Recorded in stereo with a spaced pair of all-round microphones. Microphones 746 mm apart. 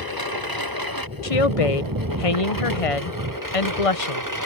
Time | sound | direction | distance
0.0 | a lawn mower | 25° right (ahead or behind) | ?
1.2 | a woman speaking | 45° left (ahead or behind) | ?